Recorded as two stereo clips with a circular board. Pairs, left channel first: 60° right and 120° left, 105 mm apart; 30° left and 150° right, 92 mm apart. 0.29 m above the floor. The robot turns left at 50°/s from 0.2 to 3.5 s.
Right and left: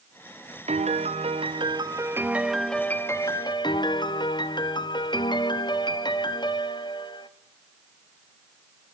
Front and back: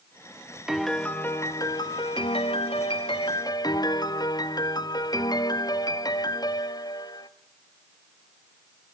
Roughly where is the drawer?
I don't hear a drawer.